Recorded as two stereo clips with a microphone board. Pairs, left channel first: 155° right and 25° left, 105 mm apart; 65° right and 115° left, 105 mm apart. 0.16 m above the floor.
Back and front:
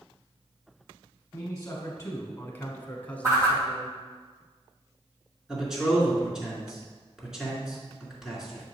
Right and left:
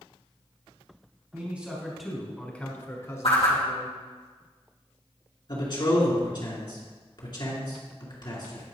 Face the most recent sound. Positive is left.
turn(degrees=-60)